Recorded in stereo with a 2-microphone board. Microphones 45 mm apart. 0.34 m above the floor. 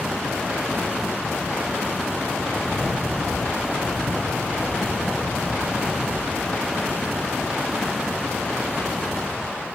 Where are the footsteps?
5° left (ahead or behind), 10 m; by 6.6 s 15° left (ahead or behind), 12 m.